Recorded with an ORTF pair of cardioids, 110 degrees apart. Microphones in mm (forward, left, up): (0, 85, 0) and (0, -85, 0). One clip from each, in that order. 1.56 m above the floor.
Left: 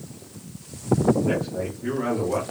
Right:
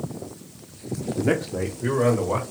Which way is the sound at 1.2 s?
55° right.